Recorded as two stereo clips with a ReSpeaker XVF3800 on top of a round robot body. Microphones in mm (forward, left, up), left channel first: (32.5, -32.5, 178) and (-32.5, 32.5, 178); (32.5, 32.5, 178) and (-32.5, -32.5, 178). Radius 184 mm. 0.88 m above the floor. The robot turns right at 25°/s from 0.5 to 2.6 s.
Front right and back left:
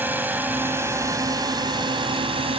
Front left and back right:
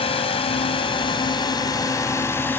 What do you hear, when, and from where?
0.0 s a drone: 65° left; by 2.6 s 115° left